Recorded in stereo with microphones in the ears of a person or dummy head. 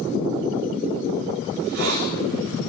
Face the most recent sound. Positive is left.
turn(degrees=-65)  # may be behind; listen again after turning